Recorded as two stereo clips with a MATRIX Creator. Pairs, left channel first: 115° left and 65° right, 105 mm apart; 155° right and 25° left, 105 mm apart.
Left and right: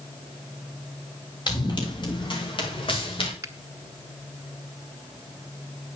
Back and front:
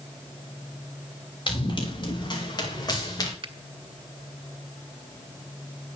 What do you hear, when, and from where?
1.5 s running footsteps: 160° left, 6.5 m; by 3.3 s 145° left, 5.5 m
3.4 s a finger snap: 10° right, 1.5 m